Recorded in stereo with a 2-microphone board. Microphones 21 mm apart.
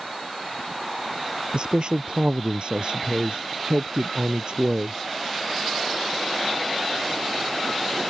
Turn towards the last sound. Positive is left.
turn(degrees=-60)  # may be behind; listen again after turning